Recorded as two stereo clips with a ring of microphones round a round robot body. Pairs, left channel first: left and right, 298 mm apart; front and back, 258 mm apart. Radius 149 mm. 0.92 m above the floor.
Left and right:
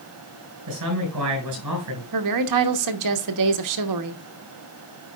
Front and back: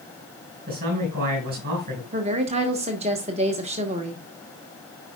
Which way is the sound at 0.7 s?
120° right.